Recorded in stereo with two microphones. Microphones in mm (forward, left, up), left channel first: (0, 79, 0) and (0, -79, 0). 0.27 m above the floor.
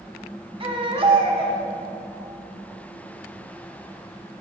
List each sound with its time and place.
0.6 s a baby crying: 35° right (ahead or behind), 1.6 m